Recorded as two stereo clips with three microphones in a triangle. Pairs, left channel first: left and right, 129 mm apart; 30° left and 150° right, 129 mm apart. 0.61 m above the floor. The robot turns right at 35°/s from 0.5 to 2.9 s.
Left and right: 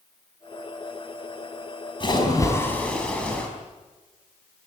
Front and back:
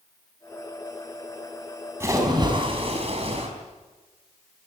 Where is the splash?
140° left, 4.5 m; by 3.5 s 170° left, 4.5 m.